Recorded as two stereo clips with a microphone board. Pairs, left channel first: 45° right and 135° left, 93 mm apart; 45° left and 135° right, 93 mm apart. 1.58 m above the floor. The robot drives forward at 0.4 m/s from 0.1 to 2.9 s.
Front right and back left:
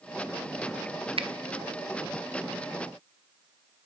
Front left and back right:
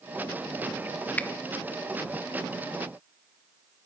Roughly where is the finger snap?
Behind left.